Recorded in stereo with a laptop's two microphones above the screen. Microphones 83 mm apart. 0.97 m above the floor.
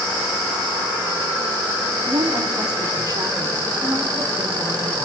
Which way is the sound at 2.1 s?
55° right (ahead or behind).